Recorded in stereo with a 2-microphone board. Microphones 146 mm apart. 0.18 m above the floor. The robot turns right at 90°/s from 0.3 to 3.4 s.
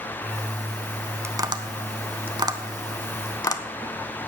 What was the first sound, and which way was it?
Tapping, 15° right (ahead or behind).